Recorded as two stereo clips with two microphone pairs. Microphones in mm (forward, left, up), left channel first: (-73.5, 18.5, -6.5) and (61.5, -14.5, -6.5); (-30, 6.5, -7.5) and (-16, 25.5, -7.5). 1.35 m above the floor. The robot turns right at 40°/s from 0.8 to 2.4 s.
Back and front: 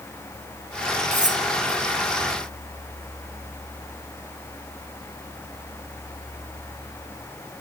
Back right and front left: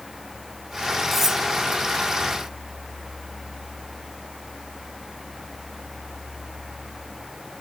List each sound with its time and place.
1.1 s cutlery clinking: 35° right, 1.2 m; by 1.4 s 20° right, 1.2 m